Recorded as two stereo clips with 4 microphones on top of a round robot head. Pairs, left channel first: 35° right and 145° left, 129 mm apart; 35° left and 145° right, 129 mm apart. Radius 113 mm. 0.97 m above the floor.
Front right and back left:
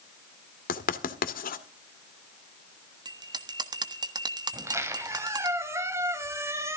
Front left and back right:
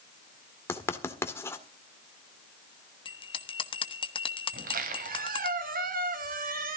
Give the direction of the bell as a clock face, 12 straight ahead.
9 o'clock.